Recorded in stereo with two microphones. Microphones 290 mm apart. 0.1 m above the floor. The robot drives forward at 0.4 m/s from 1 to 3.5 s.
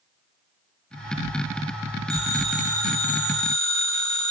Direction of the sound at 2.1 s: 70° left (ahead or behind).